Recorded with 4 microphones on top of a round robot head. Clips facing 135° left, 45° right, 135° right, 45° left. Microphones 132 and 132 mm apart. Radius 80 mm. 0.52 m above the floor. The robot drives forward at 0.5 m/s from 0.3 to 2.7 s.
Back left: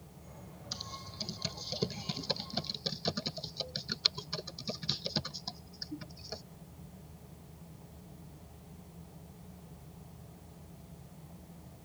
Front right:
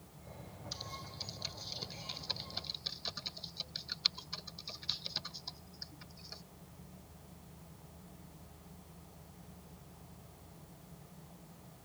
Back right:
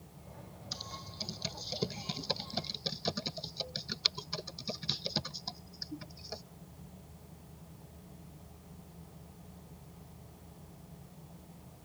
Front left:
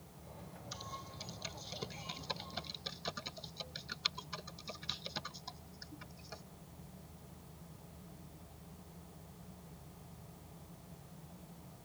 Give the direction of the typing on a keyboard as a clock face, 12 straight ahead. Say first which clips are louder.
Back left 1 dB, back right 1 dB; 6 o'clock.